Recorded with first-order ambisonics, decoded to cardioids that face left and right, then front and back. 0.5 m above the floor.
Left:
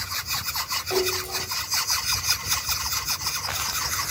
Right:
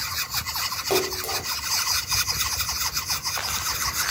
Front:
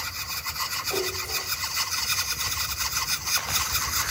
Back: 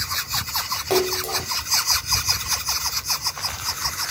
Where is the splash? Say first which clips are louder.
Right 1 dB, back 6 dB; 150° right, 2 m.